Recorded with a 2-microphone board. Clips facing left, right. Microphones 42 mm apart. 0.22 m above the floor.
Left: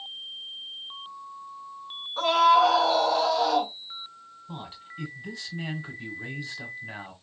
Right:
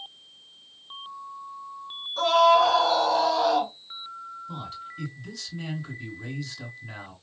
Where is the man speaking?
20° left (ahead or behind), 1.5 m.